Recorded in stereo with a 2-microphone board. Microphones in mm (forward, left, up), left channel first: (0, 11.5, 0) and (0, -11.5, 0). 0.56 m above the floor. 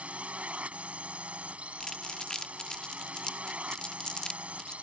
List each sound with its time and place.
0.0 s a drone: 70° right (ahead or behind)
1.8 s crumpling: 35° left (ahead or behind)